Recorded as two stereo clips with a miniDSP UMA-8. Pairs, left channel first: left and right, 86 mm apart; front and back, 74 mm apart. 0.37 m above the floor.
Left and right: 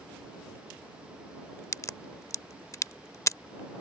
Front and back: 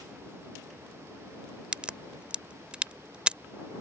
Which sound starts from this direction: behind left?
A crack, at 1.7 s.